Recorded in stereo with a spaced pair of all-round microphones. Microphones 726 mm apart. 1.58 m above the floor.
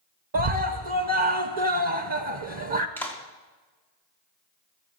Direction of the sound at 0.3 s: 40° right (ahead or behind).